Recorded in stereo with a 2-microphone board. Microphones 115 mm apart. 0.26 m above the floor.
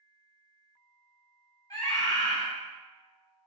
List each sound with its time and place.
1.7 s a scream: 30° left (ahead or behind), 1.3 m